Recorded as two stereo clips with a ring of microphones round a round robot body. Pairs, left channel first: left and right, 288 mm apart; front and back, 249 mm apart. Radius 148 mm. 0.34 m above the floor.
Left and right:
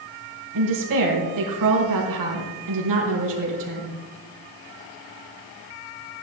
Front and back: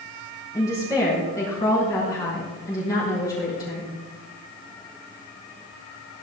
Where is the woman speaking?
80° right, 4.5 m.